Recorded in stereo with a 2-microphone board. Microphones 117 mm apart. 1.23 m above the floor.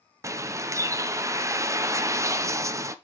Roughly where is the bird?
Right.